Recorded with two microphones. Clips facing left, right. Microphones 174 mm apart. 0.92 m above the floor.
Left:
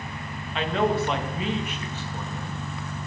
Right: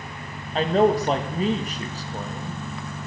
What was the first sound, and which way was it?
A man speaking, 40° right (ahead or behind).